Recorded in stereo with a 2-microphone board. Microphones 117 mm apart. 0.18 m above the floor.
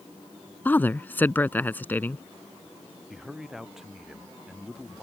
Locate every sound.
0.7 s a woman speaking: 15° left (ahead or behind)
3.1 s a man speaking: 5° right (ahead or behind)